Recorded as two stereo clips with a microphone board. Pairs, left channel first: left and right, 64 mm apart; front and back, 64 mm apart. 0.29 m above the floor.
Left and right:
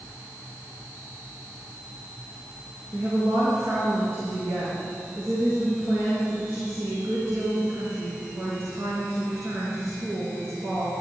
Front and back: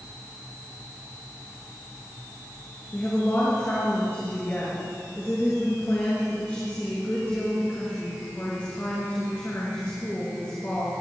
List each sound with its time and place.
2.9 s a woman speaking: 55° right, 5 m